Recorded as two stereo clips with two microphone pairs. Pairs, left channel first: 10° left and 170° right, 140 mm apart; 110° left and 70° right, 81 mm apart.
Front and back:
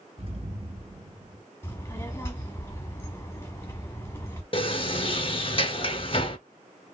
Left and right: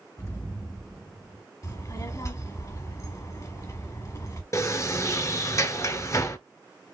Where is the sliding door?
55° left, 0.5 m.